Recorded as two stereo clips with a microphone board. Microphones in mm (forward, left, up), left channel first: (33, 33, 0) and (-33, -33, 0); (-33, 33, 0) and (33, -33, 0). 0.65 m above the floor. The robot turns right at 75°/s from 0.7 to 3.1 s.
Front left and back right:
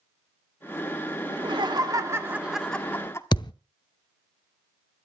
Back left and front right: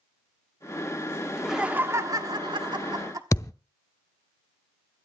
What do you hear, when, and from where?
1.3 s laughter: 145° right, 1.5 m; by 3.2 s 10° right, 1.5 m
3.3 s a thud: 80° left, 0.7 m